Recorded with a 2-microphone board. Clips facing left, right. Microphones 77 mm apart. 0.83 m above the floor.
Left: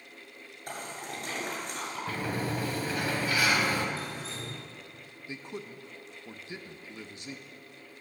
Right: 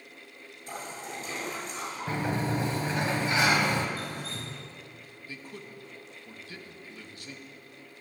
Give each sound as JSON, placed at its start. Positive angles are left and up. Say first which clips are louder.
{"t": 0.7, "sound": "a splash", "louder": "even", "side_deg": 60, "distance_m": 7.5}
{"t": 2.1, "sound": "a sliding door", "louder": "right 4 dB", "side_deg": -25, "distance_m": 1.9}
{"t": 4.0, "sound": "dripping", "louder": "right 1 dB", "side_deg": -50, "distance_m": 5.5}
{"t": 5.3, "sound": "a man speaking", "louder": "left 4 dB", "side_deg": 20, "distance_m": 1.0}